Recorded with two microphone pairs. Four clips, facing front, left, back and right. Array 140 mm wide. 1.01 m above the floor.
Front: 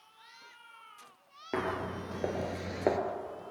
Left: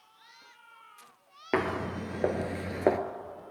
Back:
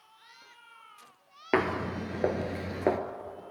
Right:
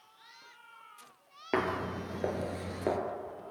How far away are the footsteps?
About 1.2 m.